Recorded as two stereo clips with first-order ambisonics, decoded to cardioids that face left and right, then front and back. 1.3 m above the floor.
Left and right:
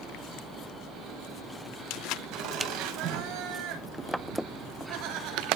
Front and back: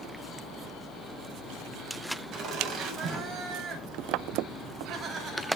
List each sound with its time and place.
2.3 s laughter: 120° right, 7.5 m; by 5.6 s 105° right, 7.5 m